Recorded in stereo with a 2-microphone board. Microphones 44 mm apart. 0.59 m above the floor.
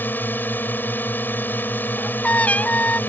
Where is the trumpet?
35° left (ahead or behind).